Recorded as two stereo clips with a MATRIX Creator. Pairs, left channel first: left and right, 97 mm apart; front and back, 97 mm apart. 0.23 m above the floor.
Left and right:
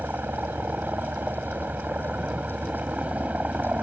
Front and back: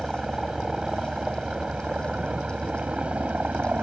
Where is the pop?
No pop in this recording.